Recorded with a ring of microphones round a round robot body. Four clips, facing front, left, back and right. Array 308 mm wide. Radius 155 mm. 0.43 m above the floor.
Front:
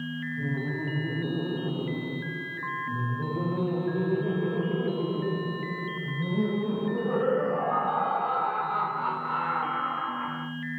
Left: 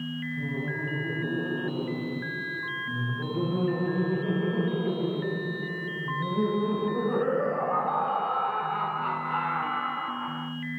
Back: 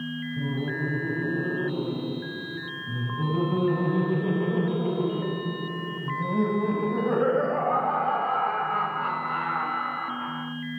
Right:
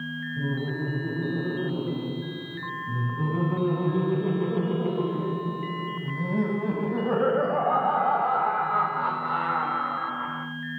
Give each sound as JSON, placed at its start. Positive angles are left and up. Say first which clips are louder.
{"t": 0.4, "sound": "laughter", "louder": "right 5 dB, back 3 dB", "azimuth_deg": -135, "distance_m": 6.5}